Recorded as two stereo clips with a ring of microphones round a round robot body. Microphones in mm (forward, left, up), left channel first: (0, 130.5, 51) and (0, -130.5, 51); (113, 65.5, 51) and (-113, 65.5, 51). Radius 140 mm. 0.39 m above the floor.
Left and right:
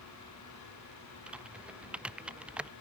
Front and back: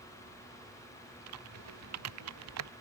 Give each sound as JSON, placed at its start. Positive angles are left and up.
{"t": 1.3, "sound": "typing on a keyboard", "azimuth_deg": -175}